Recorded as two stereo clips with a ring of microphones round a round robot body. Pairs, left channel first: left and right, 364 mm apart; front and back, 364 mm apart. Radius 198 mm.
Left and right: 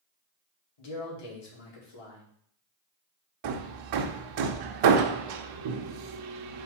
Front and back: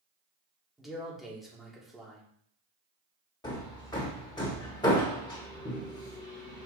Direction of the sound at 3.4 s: 80° right.